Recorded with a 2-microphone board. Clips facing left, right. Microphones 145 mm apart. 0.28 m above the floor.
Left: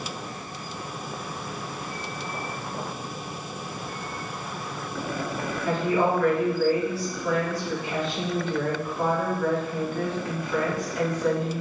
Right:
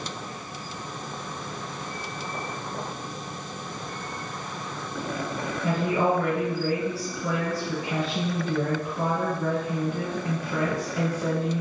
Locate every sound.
5.6 s a woman speaking: 35° right (ahead or behind), 1.8 m